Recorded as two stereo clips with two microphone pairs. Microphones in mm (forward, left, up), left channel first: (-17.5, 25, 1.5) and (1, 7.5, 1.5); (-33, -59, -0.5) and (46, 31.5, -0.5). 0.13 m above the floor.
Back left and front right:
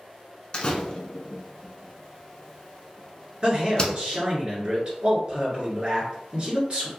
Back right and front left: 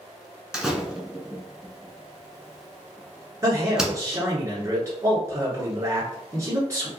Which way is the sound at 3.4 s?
5° right.